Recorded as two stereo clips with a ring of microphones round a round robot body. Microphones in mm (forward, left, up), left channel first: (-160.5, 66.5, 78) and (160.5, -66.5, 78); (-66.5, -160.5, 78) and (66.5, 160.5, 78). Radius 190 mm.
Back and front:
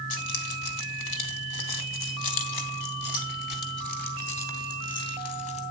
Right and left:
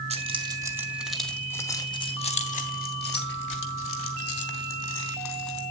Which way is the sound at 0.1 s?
140° left.